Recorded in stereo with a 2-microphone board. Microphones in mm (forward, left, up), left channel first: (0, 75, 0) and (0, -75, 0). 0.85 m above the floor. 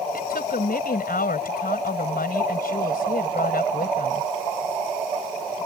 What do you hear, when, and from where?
0.1 s a woman speaking: 85° left